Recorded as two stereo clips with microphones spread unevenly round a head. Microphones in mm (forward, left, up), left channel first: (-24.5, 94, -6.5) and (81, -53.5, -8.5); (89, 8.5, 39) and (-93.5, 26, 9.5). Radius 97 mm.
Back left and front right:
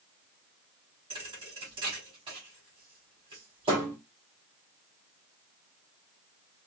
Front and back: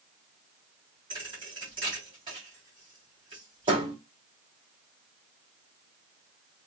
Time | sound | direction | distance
1.1 | a thud | 120° right | 3 m